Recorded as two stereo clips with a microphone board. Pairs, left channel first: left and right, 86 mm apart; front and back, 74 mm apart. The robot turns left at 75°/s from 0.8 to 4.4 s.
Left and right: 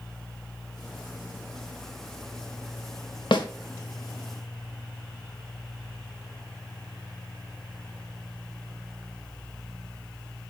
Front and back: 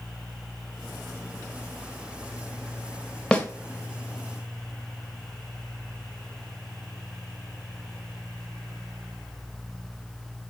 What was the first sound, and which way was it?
A snare drum, 75° left.